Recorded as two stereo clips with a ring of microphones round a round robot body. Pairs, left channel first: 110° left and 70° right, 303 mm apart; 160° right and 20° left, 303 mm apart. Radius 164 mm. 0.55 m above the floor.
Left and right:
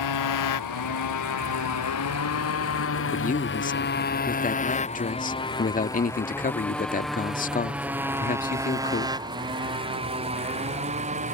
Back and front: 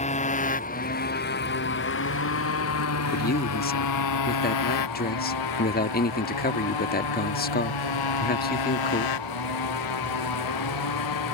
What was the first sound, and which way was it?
A motorcycle, 135° left.